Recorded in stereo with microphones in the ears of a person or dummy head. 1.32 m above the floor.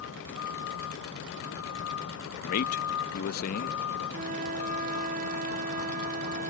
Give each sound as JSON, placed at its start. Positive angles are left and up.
{"t": 0.0, "sound": "a vehicle", "side_deg": 90}
{"t": 2.4, "sound": "a man speaking", "side_deg": 55}
{"t": 4.1, "sound": "a flute", "side_deg": -45}